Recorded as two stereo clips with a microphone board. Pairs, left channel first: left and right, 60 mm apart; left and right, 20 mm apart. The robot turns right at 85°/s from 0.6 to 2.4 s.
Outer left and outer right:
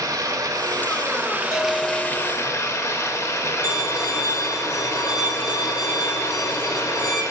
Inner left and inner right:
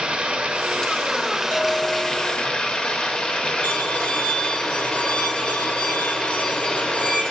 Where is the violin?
90° left, 1.0 m.